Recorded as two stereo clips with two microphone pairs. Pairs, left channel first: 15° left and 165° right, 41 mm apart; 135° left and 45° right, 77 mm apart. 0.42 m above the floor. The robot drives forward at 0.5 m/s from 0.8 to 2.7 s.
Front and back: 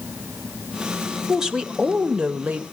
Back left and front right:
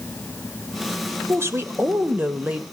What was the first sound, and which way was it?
A woman speaking, 85° right.